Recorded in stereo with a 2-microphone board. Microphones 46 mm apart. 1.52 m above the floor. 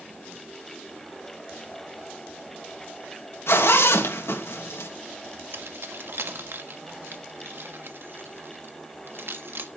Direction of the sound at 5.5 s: 55° right (ahead or behind).